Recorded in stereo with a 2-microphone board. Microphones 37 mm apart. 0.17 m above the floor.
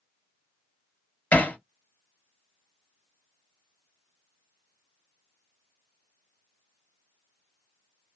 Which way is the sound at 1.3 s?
40° left (ahead or behind).